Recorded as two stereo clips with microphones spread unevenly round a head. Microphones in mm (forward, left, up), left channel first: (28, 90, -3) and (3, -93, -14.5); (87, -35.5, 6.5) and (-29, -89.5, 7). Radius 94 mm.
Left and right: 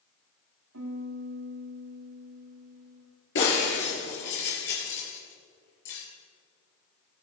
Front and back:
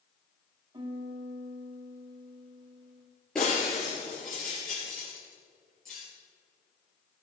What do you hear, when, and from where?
0.7 s a piano: 105° right, 2.5 m
3.4 s breaking glass: 110° left, 4.5 m